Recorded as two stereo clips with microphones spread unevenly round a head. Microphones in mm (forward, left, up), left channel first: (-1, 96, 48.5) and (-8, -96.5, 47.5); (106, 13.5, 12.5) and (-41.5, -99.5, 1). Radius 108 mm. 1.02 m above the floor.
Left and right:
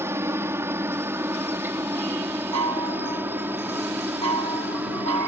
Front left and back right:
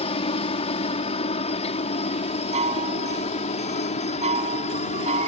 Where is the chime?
90° right.